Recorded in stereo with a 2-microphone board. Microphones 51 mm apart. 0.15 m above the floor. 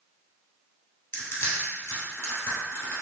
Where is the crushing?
60° left (ahead or behind), 1.6 m.